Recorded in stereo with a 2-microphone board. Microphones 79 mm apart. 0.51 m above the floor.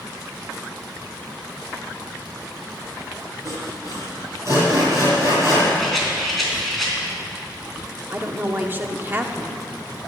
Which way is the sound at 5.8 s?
Centre (ahead or behind).